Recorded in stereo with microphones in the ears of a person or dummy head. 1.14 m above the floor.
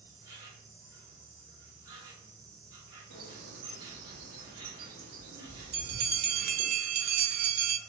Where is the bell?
50° right (ahead or behind), 0.5 m.